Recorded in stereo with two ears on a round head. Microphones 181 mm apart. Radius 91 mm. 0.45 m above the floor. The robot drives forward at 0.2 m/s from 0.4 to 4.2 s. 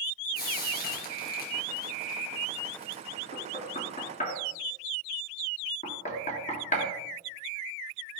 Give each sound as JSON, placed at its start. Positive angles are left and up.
{"t": 0.3, "sound": "frying", "side_deg": 50, "distance_m": 4.0}
{"t": 3.3, "sound": "knocking", "side_deg": 40, "distance_m": 3.0}